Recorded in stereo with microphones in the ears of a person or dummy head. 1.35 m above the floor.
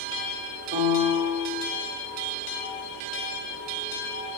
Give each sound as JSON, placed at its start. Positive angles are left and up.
{"t": 0.7, "sound": "a piano", "side_deg": -50, "distance_m": 4.0}